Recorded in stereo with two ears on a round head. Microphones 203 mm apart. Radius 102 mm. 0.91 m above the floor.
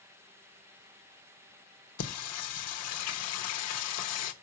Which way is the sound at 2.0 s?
75° left (ahead or behind).